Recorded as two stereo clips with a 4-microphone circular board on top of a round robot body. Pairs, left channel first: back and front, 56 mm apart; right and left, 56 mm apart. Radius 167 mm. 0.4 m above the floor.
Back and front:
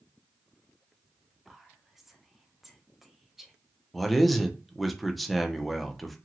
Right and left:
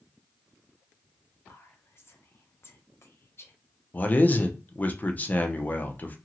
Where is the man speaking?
90° right, 0.8 m.